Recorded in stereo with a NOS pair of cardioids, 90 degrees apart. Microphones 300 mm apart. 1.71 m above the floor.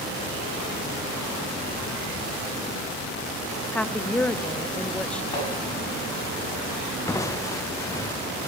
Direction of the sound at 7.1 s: 10° left.